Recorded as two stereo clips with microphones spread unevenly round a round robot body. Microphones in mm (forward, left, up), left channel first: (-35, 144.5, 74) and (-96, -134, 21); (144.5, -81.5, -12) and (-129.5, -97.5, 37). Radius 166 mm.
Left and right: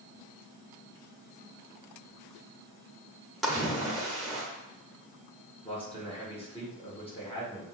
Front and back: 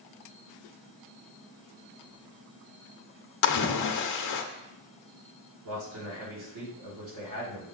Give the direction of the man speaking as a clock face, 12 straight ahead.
7 o'clock.